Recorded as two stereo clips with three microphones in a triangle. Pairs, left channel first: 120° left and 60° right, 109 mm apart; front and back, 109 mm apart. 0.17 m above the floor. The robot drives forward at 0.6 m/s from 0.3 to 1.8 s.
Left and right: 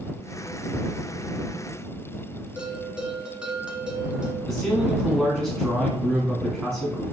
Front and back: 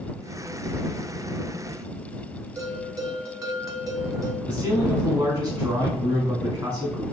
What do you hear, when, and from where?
2.6 s a bell: 135° right, 0.7 m
4.5 s a man speaking: 155° right, 1.8 m